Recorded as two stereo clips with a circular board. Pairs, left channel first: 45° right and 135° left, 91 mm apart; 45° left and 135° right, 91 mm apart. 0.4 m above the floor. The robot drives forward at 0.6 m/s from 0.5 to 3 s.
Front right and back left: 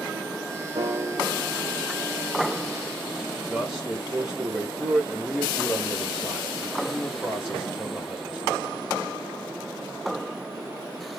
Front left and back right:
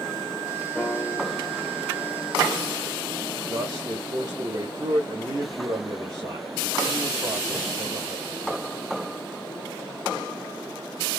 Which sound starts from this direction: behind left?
A piano, at 0.8 s.